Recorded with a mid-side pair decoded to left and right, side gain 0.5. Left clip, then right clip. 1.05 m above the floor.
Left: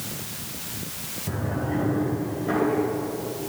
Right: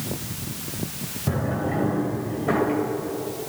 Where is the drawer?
45° right, 2.5 m.